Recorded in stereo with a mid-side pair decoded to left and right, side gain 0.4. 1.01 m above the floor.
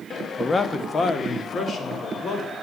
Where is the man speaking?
30° left, 1.1 m; by 2.5 s 60° left, 3.5 m.